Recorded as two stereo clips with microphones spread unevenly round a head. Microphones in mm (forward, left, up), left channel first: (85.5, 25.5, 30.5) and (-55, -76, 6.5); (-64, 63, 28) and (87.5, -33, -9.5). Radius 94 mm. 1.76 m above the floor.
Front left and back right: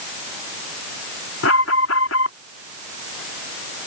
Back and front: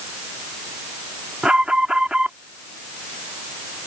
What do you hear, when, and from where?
1.4 s an alarm: 55° left